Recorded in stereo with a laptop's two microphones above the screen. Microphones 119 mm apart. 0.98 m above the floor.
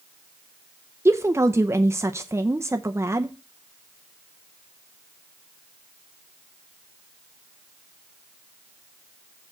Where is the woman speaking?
20° right (ahead or behind), 0.6 m.